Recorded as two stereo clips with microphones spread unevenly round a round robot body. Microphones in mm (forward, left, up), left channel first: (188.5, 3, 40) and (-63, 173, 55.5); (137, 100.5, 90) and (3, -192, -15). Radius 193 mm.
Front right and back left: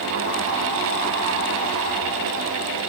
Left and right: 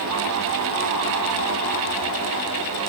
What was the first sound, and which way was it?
Only background noise.